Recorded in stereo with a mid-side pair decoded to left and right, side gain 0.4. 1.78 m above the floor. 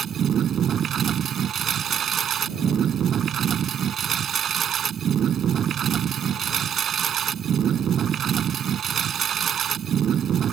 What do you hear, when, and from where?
0.0 s a lawn mower: 65° right